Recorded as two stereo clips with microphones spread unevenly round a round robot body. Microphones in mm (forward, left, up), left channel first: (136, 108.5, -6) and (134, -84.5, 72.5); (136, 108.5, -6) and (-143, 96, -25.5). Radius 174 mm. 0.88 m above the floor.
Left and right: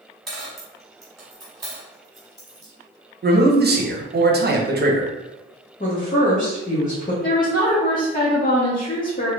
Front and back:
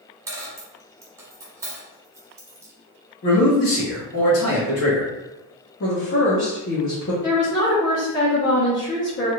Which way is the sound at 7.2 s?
55° left.